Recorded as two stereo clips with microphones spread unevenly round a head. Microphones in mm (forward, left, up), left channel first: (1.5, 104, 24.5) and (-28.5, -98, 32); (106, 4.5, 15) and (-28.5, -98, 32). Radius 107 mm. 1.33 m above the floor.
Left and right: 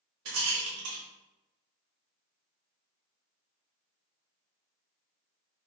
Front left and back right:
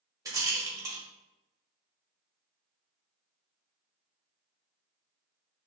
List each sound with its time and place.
0.2 s a rattle: 75° right, 1.4 m